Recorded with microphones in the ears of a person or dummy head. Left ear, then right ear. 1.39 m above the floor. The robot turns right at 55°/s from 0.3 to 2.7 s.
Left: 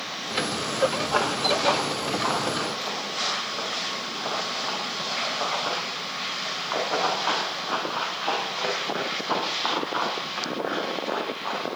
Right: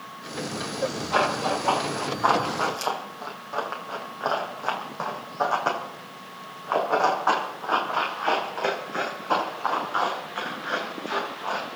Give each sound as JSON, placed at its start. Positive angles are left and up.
{"t": 1.1, "sound": "running footsteps", "side_deg": 20, "distance_m": 4.0}